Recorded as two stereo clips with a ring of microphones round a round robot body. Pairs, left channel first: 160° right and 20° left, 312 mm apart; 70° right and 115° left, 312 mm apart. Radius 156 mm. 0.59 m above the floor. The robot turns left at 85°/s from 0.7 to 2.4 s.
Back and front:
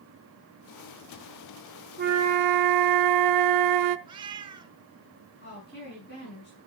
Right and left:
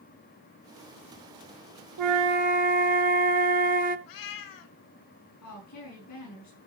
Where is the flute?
85° left, 0.7 m; by 4.0 s 50° left, 0.7 m.